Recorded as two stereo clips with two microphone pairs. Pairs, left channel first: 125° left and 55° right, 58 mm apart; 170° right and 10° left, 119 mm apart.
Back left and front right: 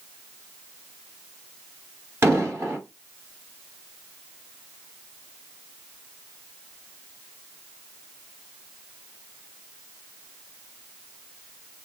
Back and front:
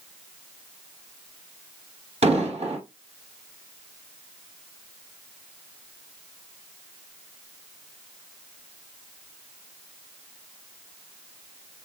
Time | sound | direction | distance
2.2 | an explosion | 15° right | 1.9 m